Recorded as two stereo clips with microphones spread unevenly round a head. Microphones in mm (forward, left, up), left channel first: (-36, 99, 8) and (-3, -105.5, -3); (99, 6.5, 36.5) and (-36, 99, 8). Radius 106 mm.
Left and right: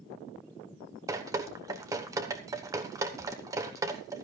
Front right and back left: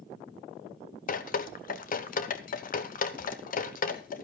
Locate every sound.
1.1 s dripping: 5° right, 1.1 m